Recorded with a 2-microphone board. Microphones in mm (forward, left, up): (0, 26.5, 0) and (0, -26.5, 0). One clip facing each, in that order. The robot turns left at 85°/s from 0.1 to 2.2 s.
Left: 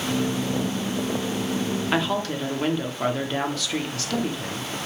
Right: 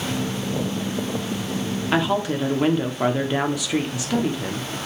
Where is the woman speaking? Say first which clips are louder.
Right 5 dB; 5° right (ahead or behind), 0.7 m; by 4.7 s 15° right (ahead or behind), 0.7 m.